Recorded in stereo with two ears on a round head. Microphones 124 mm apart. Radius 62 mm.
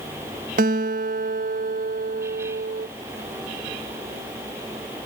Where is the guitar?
65° right (ahead or behind).